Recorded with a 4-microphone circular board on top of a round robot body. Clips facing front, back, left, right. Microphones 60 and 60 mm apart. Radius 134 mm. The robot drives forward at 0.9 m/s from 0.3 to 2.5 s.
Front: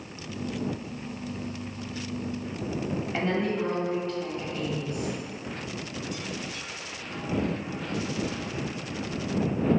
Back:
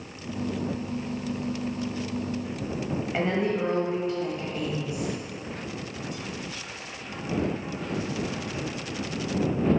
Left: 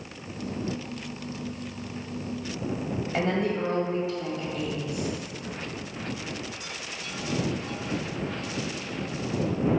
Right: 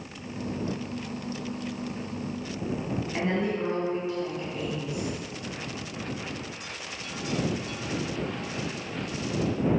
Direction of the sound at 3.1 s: 105° left.